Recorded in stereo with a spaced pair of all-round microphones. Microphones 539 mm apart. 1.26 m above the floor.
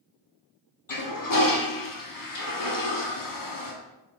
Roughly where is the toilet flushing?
Left.